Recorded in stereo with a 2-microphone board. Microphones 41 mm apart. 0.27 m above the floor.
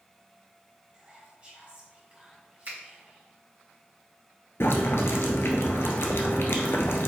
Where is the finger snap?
50° right (ahead or behind), 1.8 m.